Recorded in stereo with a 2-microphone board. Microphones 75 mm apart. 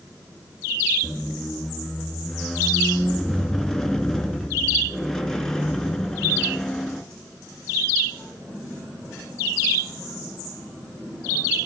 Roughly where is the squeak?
Centre.